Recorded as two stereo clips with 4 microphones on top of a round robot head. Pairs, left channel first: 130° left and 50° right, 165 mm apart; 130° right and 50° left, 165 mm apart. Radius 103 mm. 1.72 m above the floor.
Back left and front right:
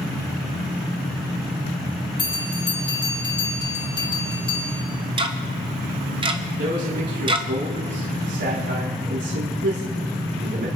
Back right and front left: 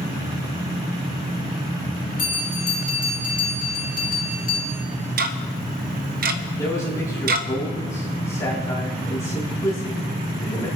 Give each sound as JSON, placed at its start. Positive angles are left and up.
{"t": 2.2, "sound": "a bell", "azimuth_deg": -170, "distance_m": 2.5}
{"t": 5.2, "sound": "ticking", "azimuth_deg": 15, "distance_m": 0.9}
{"t": 6.6, "sound": "a man speaking", "azimuth_deg": -55, "distance_m": 3.5}